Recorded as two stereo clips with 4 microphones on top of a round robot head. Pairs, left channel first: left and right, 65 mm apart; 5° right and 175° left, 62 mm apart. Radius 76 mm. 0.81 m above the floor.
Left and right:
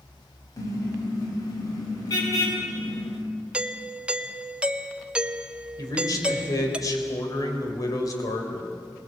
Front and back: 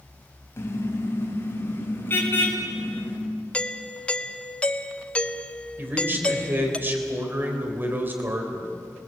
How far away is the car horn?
About 3 m.